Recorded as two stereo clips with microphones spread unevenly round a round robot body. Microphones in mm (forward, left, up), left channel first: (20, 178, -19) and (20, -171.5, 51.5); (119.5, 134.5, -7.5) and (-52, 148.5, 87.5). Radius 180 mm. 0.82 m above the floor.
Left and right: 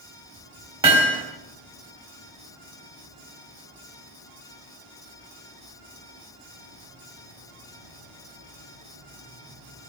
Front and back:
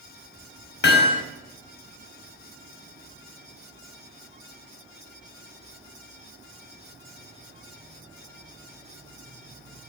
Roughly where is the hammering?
Ahead.